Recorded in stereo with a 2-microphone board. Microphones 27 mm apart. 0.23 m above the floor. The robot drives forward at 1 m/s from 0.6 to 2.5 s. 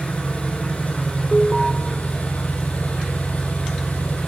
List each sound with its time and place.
0.0 s an engine running: 55° left (ahead or behind), 5.5 m; by 4.3 s 75° left (ahead or behind), 5 m
1.3 s an alarm: 10° left (ahead or behind), 2.5 m